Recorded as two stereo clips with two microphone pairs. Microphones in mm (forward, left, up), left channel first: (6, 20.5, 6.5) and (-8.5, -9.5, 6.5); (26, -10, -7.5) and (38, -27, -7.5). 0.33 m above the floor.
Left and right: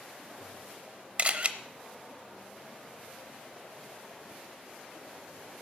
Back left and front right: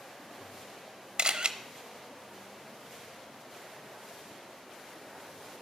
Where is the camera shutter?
75° right, 0.7 m.